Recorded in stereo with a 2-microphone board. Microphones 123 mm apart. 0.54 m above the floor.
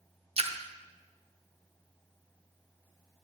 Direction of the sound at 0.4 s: 50° right (ahead or behind).